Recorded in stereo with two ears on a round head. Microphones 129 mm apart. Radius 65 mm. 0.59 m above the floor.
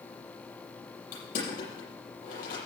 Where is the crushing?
60° left (ahead or behind), 7 m.